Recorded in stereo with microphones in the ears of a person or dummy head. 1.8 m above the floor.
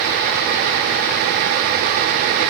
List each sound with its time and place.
Only background noise.